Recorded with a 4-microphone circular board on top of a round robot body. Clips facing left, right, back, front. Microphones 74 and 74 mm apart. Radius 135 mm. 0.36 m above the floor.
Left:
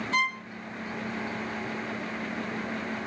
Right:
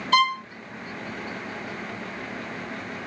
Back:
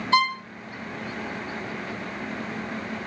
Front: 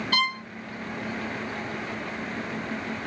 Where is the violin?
110° right, 0.7 m.